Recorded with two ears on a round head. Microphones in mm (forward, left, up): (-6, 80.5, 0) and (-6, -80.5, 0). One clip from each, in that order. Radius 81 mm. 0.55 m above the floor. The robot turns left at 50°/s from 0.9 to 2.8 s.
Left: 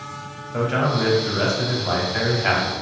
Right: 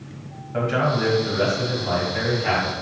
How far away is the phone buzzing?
No phone buzzing in this recording.